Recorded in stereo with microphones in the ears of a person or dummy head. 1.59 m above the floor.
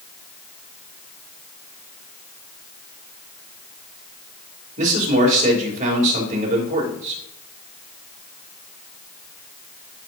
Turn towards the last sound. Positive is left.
turn(degrees=-40)  # may be behind; listen again after turning